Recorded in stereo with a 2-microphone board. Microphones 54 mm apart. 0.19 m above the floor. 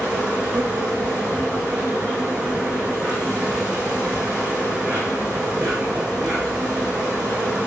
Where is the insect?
25° right (ahead or behind), 6.5 m.